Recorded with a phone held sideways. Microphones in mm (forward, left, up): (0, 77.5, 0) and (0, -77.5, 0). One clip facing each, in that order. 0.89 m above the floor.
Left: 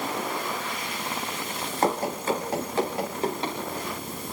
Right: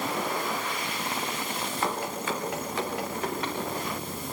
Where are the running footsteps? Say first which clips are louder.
Left 7 dB; 40° left (ahead or behind), 3.5 m; by 3.6 s 25° left (ahead or behind), 5.5 m.